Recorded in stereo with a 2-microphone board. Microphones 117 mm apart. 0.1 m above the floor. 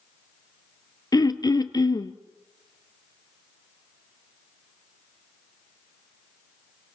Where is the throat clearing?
30° left (ahead or behind), 1.0 m.